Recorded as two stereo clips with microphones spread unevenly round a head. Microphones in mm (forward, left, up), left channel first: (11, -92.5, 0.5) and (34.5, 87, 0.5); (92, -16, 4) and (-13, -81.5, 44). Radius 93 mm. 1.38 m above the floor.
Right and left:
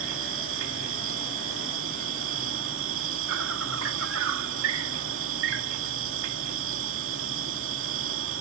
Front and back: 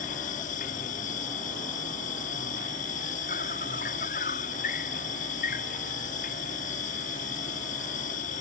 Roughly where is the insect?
Left.